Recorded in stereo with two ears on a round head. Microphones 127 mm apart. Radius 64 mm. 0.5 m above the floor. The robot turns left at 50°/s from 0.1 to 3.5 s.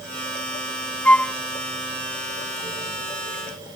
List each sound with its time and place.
1.1 s a flute: 10° left (ahead or behind); by 1.3 s 5° left (ahead or behind)